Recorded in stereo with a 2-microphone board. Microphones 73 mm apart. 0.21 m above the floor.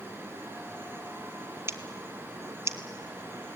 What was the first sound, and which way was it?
Scissors, 40° right (ahead or behind).